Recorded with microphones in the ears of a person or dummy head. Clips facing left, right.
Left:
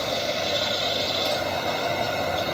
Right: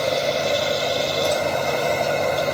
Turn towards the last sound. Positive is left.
turn(degrees=-60)  # may be behind; listen again after turning